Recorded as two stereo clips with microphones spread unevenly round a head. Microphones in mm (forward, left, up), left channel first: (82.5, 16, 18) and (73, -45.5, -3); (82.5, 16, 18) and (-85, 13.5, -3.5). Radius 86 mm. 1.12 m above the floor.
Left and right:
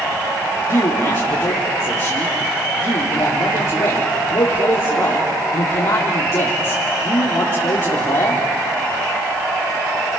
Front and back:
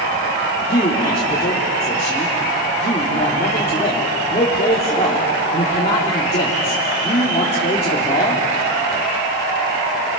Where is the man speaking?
60° left, 3.5 m.